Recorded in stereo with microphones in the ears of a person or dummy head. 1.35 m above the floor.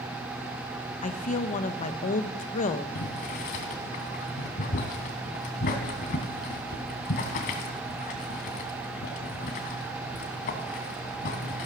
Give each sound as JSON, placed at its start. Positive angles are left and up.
{"t": 1.0, "sound": "a woman speaking", "side_deg": 40, "distance_m": 1.0}
{"t": 3.0, "sound": "boiling", "side_deg": 45, "distance_m": 1.7}